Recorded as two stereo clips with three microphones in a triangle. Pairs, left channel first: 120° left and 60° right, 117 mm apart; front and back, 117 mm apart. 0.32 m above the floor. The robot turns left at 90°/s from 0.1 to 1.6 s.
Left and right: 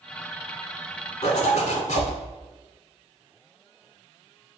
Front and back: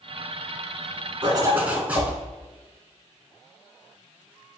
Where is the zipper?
140° left, 0.6 m; by 2.1 s 105° left, 0.6 m.